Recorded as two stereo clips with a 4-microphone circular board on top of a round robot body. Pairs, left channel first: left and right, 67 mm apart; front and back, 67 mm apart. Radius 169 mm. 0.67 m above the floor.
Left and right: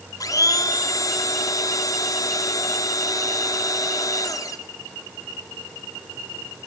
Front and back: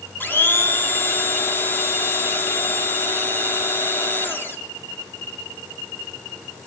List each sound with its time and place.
0.2 s a blender: 60° left, 2.5 m